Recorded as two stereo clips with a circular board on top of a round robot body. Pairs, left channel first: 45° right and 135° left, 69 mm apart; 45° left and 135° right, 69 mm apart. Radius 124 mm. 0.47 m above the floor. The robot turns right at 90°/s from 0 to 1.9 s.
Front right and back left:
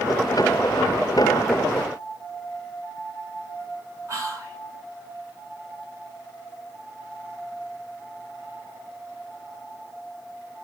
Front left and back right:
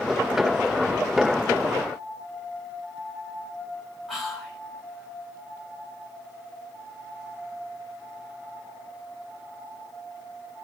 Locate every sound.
4.1 s whispering: 135° left, 1.7 m